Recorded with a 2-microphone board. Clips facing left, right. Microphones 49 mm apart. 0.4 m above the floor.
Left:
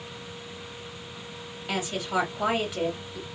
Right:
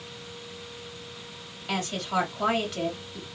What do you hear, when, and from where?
1.7 s a woman speaking: 10° left (ahead or behind), 1.2 m